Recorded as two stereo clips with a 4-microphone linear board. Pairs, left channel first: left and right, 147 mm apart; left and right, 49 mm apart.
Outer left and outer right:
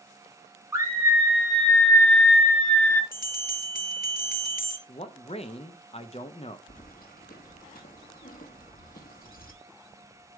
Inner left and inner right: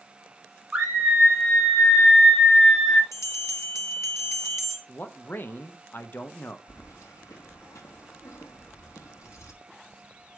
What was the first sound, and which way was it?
A scream, 20° right (ahead or behind).